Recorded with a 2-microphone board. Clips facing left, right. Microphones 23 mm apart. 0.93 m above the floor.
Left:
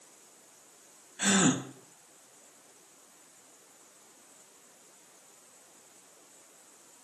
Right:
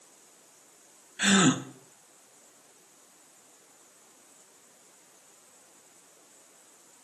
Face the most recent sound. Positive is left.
turn(degrees=-40)  # may be behind; listen again after turning